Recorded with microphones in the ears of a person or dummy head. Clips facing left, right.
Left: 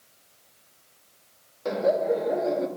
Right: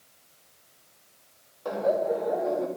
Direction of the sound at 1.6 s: 30° left (ahead or behind).